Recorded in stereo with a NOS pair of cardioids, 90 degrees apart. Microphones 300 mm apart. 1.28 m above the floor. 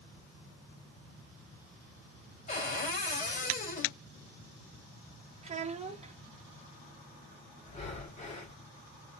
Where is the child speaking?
25° right, 1.3 m.